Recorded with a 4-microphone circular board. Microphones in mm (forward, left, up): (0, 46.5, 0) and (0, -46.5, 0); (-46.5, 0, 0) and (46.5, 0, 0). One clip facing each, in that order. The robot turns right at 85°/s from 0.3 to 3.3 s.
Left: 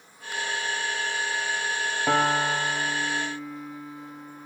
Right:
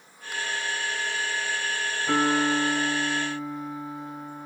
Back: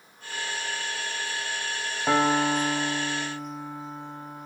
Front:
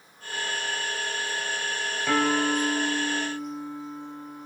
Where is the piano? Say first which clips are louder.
Even, back 2 dB; 115° left, 5 m; by 4.5 s 140° right, 5 m.